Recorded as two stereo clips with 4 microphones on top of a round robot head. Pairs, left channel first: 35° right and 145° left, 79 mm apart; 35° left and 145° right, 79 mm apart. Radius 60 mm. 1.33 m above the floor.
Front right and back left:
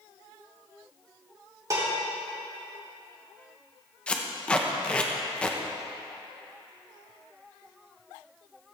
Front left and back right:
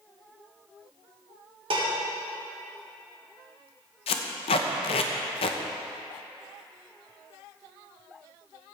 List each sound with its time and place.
1.7 s dishes clattering: 165° right, 2.5 m
4.1 s tape being pulled: 40° left, 0.9 m